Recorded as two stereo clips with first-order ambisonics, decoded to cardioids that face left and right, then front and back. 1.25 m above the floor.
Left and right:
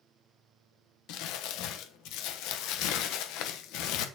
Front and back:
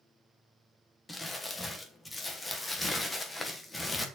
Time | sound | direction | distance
1.1 | crumpling | 80° left | 1.1 m